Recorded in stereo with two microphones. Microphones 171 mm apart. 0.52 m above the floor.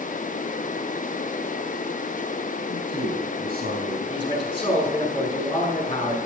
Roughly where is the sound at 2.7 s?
Right.